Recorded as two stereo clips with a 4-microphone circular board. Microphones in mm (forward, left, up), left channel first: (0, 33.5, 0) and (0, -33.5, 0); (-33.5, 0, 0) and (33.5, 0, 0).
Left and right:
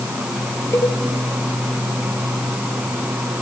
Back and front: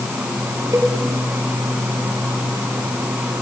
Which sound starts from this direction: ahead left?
A cowbell, at 0.7 s.